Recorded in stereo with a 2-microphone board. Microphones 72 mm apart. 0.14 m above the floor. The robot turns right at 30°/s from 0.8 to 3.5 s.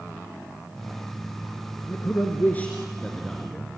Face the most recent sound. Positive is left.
turn(degrees=0)  # may be behind; listen again after turning